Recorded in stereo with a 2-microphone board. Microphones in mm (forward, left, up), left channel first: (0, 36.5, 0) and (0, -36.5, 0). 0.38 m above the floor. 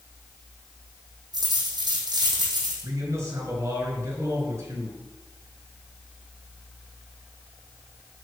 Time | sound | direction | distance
1.3 | a dropped coin | 60° right (ahead or behind) | 3.5 m
2.8 | a man speaking | 40° right (ahead or behind) | 4.5 m